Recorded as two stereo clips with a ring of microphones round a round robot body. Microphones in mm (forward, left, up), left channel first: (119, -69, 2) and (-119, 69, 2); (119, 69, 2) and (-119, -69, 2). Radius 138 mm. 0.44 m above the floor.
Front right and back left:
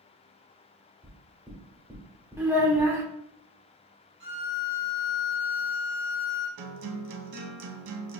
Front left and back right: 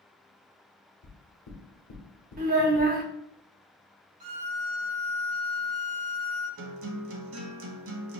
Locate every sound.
1.0 s knocking: 70° left, 1.1 m
2.4 s a child speaking: 135° right, 0.7 m
4.2 s a violin: 145° right, 1.9 m
6.6 s a guitar: 165° left, 0.7 m